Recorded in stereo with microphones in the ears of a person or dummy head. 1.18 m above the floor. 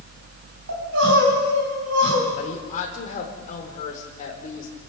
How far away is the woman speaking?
About 4 m.